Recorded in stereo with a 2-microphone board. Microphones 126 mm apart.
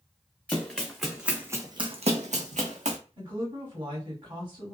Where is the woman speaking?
40° right (ahead or behind), 1.6 m.